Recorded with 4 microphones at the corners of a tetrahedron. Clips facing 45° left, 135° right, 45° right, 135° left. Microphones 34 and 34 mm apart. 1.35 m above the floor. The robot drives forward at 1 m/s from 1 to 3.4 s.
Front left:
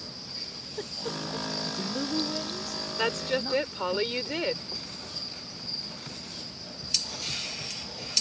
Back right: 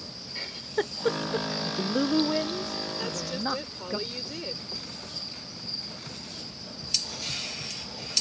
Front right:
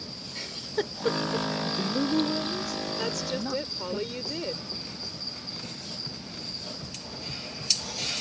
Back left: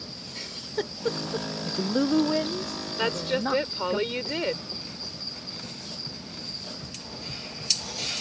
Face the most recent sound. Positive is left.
turn(degrees=90)